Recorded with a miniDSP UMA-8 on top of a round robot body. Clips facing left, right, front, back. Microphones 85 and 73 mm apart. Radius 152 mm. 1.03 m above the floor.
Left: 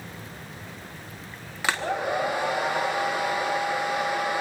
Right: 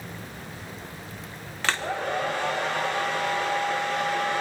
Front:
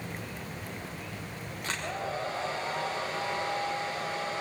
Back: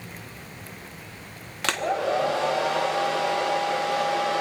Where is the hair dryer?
170° left, 0.8 m.